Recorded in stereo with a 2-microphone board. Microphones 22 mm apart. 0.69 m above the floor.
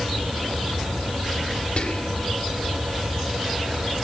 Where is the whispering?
55° left (ahead or behind), 1.8 m.